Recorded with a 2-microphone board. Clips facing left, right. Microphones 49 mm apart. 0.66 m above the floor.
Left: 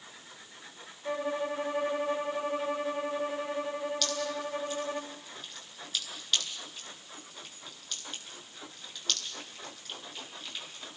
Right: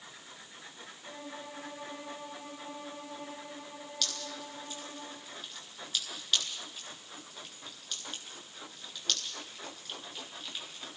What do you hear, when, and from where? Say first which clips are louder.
1.1 s a violin: left 13 dB; 60° left (ahead or behind), 1.6 m
4.0 s dripping: left 7 dB; centre (ahead or behind), 9 m